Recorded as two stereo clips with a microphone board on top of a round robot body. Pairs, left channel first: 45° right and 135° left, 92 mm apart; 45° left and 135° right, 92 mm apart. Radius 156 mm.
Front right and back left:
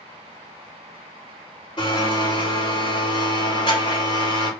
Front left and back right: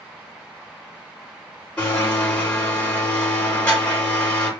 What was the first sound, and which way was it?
A blender, 25° right.